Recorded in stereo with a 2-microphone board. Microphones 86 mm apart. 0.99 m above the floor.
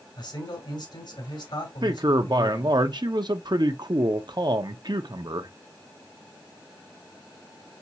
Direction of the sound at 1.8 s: 60° right (ahead or behind).